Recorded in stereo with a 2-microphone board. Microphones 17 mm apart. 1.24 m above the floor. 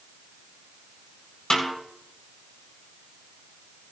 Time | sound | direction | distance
1.5 | a snare drum | 65° left (ahead or behind) | 4.5 m